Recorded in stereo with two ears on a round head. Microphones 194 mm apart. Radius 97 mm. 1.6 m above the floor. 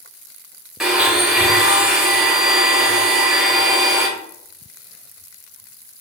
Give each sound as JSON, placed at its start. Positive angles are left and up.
{"t": 0.8, "sound": "a blender", "side_deg": 0, "distance_m": 1.1}